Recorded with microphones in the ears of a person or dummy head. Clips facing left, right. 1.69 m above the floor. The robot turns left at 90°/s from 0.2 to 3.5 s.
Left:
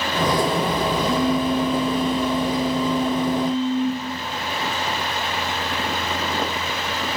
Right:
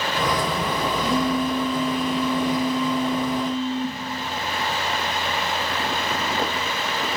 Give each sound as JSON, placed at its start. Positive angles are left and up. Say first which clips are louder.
{"t": 1.0, "sound": "a phone buzzing", "louder": "left 1 dB", "azimuth_deg": -170, "distance_m": 0.6}